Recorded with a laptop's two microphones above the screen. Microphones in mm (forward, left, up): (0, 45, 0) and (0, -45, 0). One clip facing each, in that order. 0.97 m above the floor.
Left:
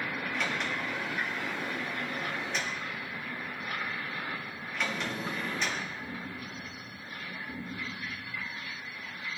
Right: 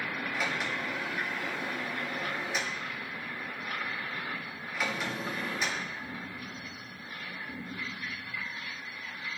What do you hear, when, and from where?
0.3 s a sliding door: 5° right (ahead or behind), 1.4 m